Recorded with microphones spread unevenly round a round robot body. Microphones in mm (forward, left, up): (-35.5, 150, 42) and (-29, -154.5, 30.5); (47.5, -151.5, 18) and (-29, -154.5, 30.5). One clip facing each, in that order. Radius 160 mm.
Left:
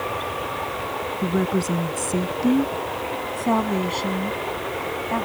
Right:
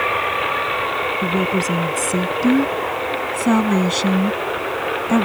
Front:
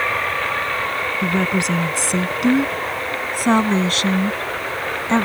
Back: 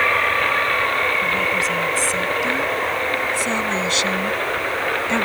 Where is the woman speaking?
5° right; by 5.3 s 50° right.